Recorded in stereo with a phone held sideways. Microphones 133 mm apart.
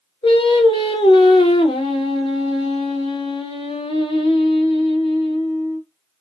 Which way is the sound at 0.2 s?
35° left (ahead or behind).